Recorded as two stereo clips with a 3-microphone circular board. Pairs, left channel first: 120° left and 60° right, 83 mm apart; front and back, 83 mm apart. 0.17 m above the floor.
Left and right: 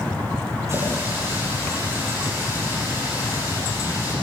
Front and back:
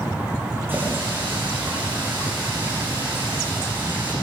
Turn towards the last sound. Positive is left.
turn(degrees=-115)